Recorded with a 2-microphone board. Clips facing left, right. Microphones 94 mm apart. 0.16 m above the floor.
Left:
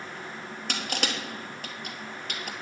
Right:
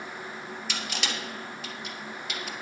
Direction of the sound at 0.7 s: 50° left (ahead or behind).